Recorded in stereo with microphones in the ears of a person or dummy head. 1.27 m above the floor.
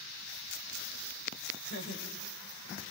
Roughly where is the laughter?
Left.